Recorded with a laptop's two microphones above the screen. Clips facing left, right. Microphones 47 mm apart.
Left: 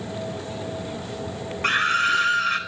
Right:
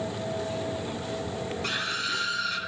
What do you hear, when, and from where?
1.6 s a scream: 50° left (ahead or behind), 4.5 m